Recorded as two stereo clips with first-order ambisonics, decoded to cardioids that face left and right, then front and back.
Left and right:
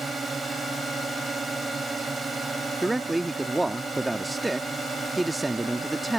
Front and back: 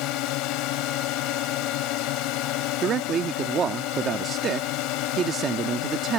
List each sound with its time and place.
0.0 s a drone: 15° right
2.8 s a man speaking: 170° right